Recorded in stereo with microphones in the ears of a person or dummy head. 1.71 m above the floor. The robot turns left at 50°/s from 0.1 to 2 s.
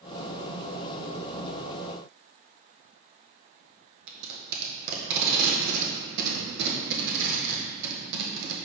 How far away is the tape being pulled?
About 1.7 m.